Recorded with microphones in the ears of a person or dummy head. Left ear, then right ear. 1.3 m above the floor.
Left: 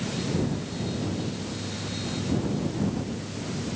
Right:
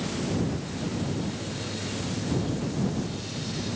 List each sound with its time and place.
Only background noise.